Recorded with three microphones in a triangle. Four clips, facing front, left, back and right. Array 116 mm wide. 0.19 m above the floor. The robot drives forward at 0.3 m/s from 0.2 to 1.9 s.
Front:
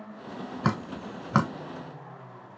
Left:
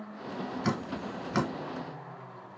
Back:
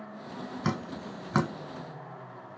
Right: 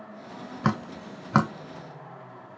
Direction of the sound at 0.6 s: 55° right.